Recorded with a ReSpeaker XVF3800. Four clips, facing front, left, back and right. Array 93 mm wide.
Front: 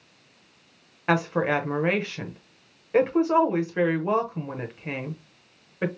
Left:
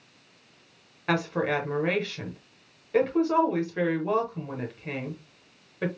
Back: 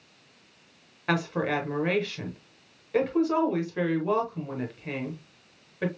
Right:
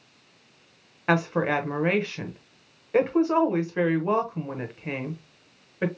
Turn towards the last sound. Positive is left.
turn(degrees=-40)